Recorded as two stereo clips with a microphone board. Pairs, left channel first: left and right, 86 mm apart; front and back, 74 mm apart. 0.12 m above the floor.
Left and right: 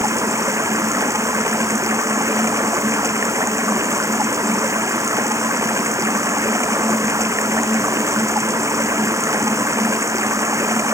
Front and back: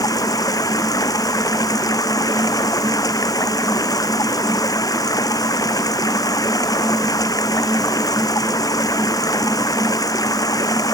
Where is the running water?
35° right.